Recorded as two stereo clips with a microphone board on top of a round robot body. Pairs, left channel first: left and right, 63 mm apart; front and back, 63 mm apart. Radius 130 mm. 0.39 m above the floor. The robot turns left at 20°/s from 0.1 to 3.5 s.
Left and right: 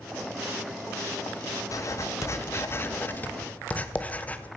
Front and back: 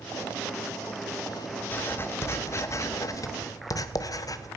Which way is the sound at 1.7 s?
60° left.